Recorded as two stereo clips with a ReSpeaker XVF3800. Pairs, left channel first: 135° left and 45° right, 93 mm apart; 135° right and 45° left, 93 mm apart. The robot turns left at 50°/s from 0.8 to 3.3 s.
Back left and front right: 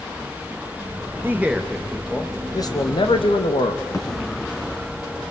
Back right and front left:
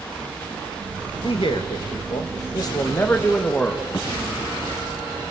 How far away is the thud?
About 5 m.